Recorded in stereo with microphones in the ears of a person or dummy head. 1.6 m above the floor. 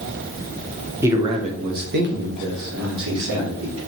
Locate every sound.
1.0 s a man speaking: 10° right (ahead or behind), 1.0 m; by 3.8 s 85° right, 3.5 m